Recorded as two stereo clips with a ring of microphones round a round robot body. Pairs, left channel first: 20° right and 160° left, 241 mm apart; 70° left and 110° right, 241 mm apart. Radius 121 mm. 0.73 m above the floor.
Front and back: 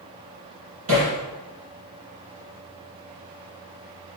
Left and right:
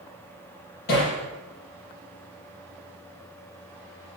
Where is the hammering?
120° left, 6.5 m.